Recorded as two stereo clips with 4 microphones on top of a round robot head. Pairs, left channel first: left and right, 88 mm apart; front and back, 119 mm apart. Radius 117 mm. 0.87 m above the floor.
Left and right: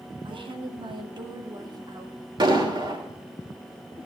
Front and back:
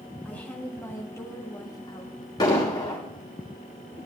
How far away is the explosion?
About 3 m.